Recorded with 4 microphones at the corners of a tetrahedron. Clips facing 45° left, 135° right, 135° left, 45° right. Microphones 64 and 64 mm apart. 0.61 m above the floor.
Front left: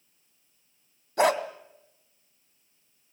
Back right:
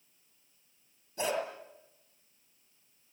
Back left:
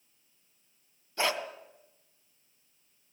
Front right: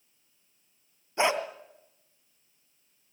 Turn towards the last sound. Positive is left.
turn(degrees=25)